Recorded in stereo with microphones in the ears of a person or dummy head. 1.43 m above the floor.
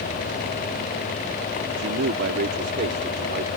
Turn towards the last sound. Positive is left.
turn(degrees=-50)  # may be behind; listen again after turning